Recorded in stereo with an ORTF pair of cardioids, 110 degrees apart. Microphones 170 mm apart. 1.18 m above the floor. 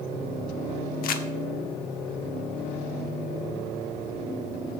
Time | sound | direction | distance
1.0 | crumpling | 65° left | 1.2 m